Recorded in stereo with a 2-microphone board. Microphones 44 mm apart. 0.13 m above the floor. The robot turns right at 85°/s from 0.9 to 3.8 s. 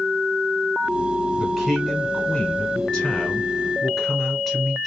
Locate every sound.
1.4 s a man speaking: 5° right (ahead or behind), 1.3 m; by 4.9 s centre (ahead or behind), 1.3 m